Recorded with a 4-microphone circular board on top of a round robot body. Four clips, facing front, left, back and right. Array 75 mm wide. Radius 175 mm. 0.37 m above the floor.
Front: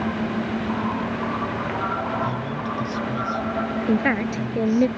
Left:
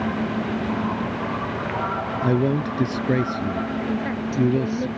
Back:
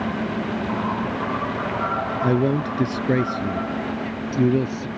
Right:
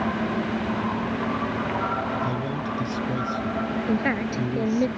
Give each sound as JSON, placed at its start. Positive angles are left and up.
{"t": 2.2, "sound": "a man speaking", "azimuth_deg": 135}
{"t": 3.9, "sound": "a woman speaking", "azimuth_deg": -20}